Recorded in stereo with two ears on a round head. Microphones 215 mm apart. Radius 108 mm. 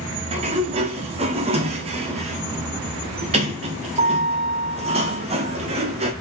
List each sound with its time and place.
0.3 s a sliding door: 25° right (ahead or behind), 0.7 m